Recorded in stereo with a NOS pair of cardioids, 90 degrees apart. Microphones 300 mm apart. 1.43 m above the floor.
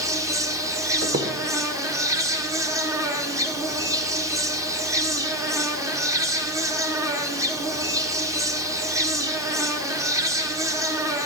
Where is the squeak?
45° right, 1.1 m.